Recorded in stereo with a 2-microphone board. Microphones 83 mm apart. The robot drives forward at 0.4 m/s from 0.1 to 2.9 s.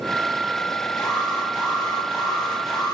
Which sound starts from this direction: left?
An alarm, at 1.0 s.